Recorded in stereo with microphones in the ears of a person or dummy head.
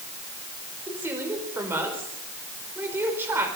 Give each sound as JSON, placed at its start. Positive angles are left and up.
{"t": 0.9, "sound": "a woman speaking", "side_deg": -10, "distance_m": 5.5}